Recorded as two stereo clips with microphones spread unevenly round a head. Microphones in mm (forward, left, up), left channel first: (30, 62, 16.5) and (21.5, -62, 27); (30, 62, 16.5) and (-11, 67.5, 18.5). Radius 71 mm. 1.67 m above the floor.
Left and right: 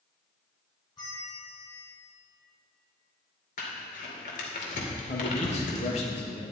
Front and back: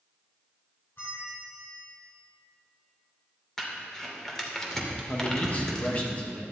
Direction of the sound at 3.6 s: 75° left.